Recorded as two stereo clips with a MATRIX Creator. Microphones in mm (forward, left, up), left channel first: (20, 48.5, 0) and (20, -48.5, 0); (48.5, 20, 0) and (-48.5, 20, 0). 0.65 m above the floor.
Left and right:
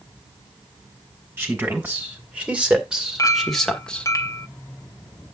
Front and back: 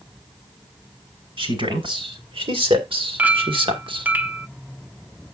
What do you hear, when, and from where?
1.4 s a man speaking: 160° right, 3.5 m; by 4.1 s 165° left, 1.6 m
3.2 s a clink: 115° left, 0.7 m